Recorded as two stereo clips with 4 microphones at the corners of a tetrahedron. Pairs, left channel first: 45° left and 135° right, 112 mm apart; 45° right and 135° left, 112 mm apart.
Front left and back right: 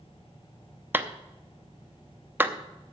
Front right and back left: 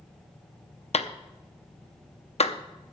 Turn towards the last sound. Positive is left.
turn(degrees=-65)